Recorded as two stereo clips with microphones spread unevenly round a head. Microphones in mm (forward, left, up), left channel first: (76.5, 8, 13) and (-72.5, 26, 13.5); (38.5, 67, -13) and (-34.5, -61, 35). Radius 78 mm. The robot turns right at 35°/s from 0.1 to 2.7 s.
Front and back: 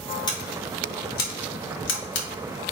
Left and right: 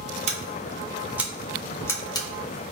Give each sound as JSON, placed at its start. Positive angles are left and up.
{"t": 0.3, "sound": "scissors", "azimuth_deg": -70, "distance_m": 1.2}